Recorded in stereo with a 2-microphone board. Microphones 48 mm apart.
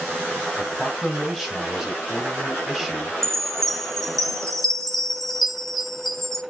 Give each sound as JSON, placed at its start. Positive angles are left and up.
{"t": 0.6, "sound": "a man speaking", "side_deg": -10, "distance_m": 1.9}
{"t": 3.2, "sound": "a chime", "side_deg": 10, "distance_m": 0.8}